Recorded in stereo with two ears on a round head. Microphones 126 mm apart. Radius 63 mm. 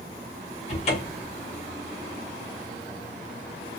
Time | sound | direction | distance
0.7 | a cupboard door | 50° left (ahead or behind) | 1.5 m